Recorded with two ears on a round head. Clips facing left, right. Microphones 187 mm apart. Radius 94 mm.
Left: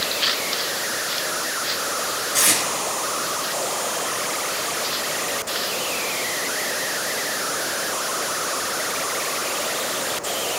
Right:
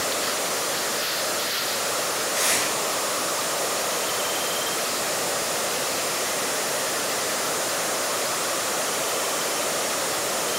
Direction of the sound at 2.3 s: 75° left (ahead or behind).